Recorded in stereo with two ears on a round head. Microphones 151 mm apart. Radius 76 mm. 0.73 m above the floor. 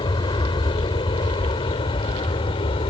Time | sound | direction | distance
0.0 | an aircraft | 30° left (ahead or behind) | ?